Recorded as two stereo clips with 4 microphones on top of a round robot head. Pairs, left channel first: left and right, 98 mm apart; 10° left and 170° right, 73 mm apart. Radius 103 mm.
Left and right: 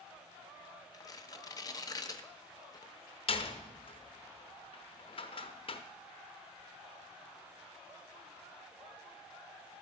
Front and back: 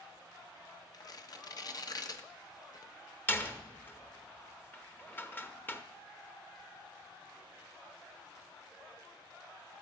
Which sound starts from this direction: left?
A door slam, at 3.3 s.